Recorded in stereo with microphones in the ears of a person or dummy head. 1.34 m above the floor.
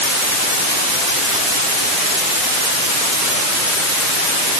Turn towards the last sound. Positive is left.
No sound to turn to.